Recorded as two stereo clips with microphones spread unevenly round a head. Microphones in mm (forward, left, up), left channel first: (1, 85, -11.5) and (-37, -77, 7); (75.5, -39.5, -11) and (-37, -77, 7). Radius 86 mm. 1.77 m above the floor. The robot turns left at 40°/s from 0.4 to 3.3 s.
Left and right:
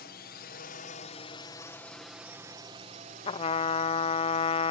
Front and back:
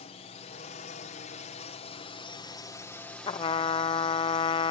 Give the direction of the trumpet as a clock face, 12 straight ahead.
11 o'clock.